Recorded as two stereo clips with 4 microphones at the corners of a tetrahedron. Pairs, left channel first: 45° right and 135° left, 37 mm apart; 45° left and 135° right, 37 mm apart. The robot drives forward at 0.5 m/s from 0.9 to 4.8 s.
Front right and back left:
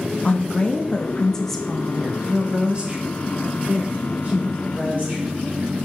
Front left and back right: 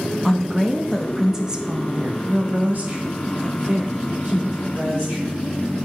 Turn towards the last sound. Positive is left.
turn(degrees=-175)